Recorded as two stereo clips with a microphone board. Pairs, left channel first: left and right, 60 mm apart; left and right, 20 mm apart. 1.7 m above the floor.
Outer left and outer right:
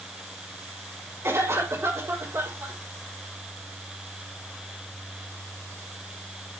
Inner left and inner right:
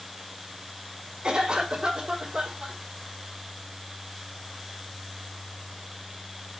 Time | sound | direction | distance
1.2 | a cough | 50° right (ahead or behind) | 4 m